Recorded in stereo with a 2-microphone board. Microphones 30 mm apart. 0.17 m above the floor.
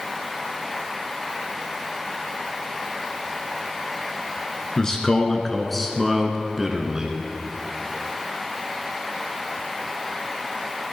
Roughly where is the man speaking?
Left.